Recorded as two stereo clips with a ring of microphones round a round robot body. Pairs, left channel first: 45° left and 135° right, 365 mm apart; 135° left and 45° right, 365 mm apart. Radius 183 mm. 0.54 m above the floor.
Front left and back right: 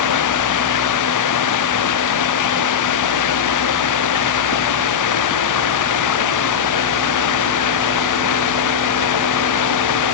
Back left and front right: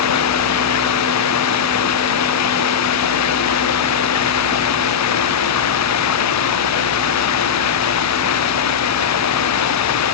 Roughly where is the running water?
Left.